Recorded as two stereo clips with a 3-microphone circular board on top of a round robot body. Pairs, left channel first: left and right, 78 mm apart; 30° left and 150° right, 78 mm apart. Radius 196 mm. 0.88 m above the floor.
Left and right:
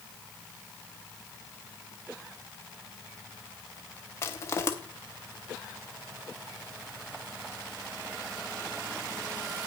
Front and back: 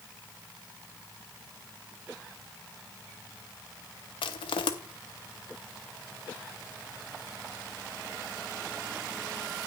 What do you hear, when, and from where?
4.2 s crushing: 30° left, 0.7 m